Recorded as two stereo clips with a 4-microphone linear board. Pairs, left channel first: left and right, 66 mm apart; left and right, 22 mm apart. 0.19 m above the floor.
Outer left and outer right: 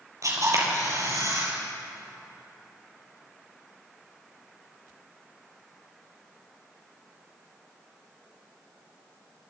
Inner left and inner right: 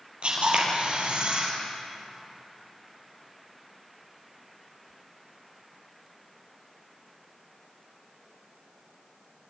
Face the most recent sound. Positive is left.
turn(degrees=-55)  # may be behind; listen again after turning